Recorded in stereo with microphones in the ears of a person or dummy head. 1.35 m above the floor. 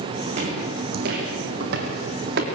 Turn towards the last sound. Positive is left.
turn(degrees=-65)  # may be behind; listen again after turning